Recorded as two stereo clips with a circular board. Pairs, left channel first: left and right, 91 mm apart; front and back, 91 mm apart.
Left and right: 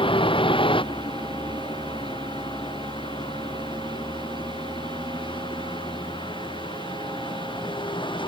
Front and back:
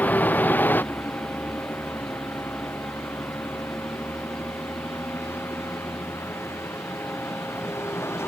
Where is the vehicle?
70° left; by 8.3 s 65° left.